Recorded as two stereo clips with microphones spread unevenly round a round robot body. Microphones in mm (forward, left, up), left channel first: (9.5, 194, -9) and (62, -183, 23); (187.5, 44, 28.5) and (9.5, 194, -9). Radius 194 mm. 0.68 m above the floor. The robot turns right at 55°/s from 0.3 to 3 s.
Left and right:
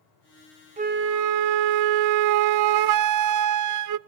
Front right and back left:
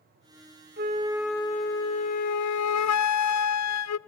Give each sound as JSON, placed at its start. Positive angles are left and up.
{"t": 0.8, "sound": "a flute", "azimuth_deg": -160, "distance_m": 0.6}